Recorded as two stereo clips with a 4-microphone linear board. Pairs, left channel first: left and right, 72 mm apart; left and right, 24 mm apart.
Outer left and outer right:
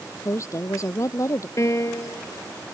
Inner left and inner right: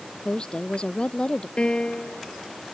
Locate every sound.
0.2 s a woman speaking: 45° left (ahead or behind)
1.6 s a piano: 45° left (ahead or behind)